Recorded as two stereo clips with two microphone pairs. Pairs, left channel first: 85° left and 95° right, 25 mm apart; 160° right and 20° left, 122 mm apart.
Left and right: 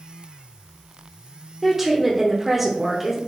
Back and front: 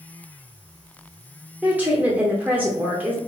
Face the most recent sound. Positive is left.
turn(degrees=-30)